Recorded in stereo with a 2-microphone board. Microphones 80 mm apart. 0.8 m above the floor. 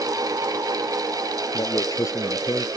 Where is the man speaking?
45° left (ahead or behind).